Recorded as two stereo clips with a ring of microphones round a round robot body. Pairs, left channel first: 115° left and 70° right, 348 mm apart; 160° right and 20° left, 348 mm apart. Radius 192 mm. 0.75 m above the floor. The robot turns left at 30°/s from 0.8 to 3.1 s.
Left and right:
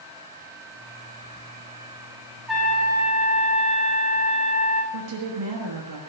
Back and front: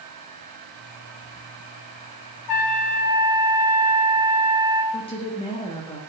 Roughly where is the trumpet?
Behind right.